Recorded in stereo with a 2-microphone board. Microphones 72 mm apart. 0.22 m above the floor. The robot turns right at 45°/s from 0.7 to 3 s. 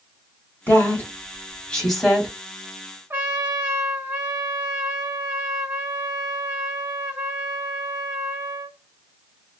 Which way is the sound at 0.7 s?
25° left (ahead or behind).